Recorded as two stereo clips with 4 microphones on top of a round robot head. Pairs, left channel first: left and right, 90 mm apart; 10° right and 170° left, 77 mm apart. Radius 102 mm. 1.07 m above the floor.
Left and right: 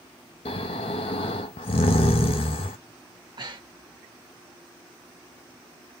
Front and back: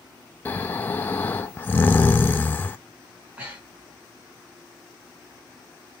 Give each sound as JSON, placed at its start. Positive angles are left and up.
{"t": 0.5, "sound": "snoring", "azimuth_deg": 55, "distance_m": 0.5}
{"t": 3.4, "sound": "breathing", "azimuth_deg": -120, "distance_m": 1.4}